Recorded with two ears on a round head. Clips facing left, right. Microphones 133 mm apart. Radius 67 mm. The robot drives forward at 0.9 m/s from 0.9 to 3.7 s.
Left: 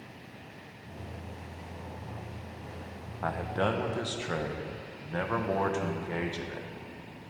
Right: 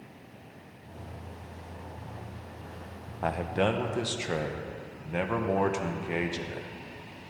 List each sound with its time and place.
3.2 s a man speaking: 30° right (ahead or behind), 0.6 m; by 6.7 s 20° right (ahead or behind), 0.9 m